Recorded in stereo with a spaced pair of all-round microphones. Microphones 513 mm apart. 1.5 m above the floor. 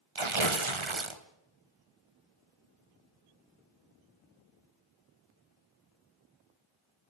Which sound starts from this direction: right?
Tearing paper, at 0.1 s.